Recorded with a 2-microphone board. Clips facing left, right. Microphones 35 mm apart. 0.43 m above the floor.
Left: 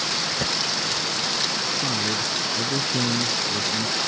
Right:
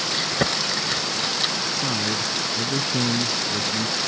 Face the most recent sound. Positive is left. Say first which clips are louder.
# even
turn(degrees=0)  # may be behind; listen again after turning